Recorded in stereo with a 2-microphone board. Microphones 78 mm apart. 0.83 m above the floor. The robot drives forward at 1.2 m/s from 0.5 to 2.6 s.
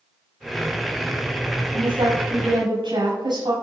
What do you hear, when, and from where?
1.7 s a woman speaking: 85° right, 5.5 m; by 3.5 s 75° right (ahead or behind), 5.5 m